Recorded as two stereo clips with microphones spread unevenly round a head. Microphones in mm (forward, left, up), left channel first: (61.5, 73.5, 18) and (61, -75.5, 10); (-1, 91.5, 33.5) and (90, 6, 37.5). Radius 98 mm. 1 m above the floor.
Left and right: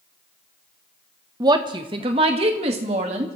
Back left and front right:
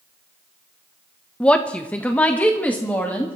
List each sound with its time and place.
1.4 s a woman speaking: 145° right, 0.9 m